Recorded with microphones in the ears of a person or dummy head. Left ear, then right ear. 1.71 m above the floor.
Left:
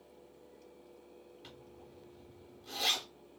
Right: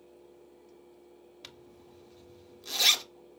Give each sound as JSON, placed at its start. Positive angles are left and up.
{"t": 1.4, "sound": "a zipper", "side_deg": -55, "distance_m": 0.6}